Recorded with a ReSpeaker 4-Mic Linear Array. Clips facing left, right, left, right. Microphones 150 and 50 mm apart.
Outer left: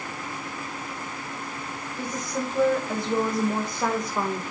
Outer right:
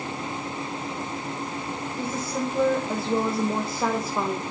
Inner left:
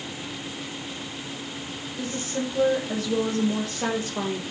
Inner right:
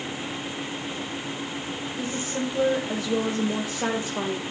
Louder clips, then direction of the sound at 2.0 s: Outer right 1 dB, inner left 1 dB; 5° right (ahead or behind).